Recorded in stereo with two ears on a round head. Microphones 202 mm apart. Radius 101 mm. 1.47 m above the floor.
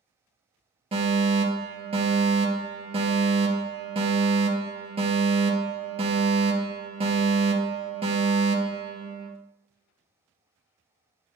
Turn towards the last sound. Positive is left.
turn(degrees=-25)  # may be behind; listen again after turning